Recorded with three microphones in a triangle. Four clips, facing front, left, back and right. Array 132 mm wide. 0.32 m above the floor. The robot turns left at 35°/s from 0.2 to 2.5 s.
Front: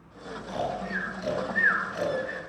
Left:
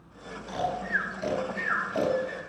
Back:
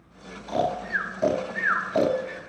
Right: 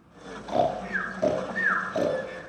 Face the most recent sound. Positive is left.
turn(degrees=165)